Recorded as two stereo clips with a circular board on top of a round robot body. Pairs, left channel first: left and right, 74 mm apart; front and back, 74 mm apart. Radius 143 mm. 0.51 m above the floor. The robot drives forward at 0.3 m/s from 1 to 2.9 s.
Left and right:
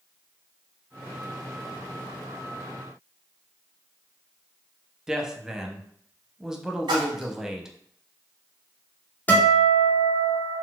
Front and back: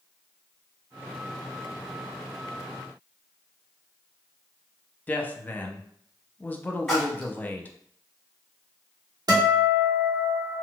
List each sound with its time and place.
5.1 s a woman speaking: 15° right, 0.6 m
6.9 s a splash: 85° right, 0.6 m
9.3 s a guitar: 155° left, 1.3 m